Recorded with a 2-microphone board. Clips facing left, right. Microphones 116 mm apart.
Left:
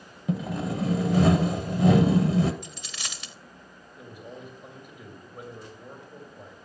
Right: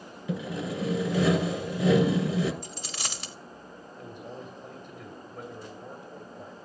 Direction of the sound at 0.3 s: 60° left (ahead or behind).